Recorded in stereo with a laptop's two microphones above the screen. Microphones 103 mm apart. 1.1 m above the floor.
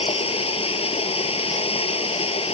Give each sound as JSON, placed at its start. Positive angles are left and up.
{"t": 0.0, "sound": "running water", "side_deg": 65}